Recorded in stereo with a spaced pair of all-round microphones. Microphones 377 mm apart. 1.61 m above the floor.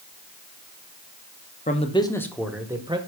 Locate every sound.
1.7 s a man speaking: 20° left (ahead or behind), 1.2 m; by 3.0 s 15° right (ahead or behind), 1.3 m